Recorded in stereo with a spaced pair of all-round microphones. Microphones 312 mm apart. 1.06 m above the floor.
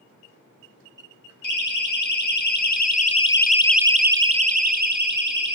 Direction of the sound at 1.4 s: 75° left (ahead or behind).